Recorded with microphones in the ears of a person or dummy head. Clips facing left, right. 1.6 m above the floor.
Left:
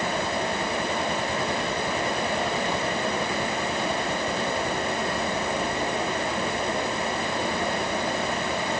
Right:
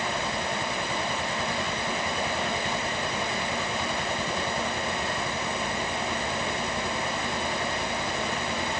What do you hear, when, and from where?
Only background noise.